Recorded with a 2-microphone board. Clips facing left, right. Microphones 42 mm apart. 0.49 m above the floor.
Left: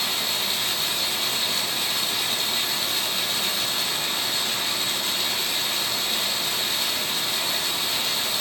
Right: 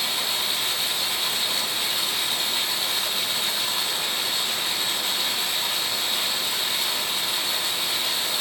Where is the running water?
15° right (ahead or behind), 1.3 m.